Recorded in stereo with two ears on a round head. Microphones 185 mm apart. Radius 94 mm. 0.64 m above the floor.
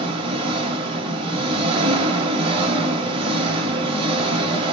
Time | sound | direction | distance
0.0 | an engine running | 25° right (ahead or behind) | 1.0 m